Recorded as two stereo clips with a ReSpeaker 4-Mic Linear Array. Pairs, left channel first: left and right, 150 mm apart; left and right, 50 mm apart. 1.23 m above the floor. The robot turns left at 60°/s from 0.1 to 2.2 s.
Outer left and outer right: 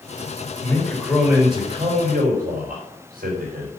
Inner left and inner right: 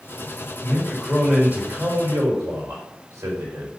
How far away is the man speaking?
About 4 m.